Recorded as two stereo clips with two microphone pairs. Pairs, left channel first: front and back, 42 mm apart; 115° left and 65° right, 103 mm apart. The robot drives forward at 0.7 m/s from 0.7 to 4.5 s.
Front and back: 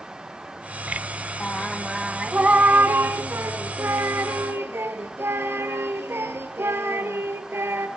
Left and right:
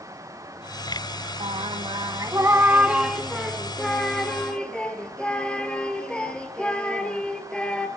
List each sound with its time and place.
1.4 s singing: 60° right, 0.7 m; by 7.9 s 165° right, 1.9 m